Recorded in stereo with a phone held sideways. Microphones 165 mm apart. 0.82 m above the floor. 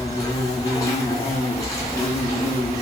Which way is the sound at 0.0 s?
20° left (ahead or behind).